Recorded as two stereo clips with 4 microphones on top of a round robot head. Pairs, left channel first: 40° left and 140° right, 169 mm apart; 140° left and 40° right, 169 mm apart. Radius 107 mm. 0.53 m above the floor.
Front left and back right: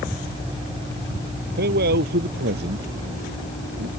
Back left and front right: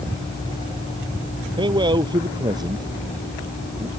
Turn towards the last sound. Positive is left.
turn(degrees=-110)